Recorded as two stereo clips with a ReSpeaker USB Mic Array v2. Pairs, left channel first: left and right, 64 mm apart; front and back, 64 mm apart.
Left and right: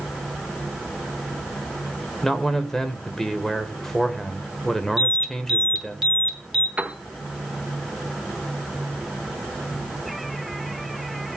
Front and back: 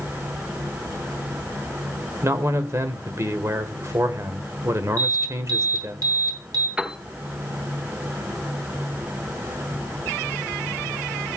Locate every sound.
2.2 s a man speaking: 175° left, 1.2 m
5.0 s an alarm: 170° right, 5.5 m
6.8 s a piano: 120° right, 1.0 m